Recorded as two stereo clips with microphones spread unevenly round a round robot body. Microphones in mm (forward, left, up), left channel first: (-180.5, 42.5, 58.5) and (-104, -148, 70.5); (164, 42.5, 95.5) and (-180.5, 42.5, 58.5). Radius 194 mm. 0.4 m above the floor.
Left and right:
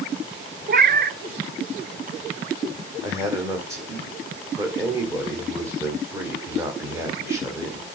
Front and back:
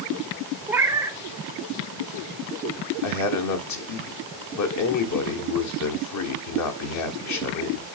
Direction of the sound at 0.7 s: 105° right.